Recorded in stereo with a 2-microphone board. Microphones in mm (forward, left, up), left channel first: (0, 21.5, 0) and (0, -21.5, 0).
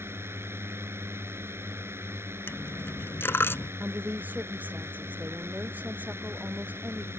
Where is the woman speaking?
40° right (ahead or behind).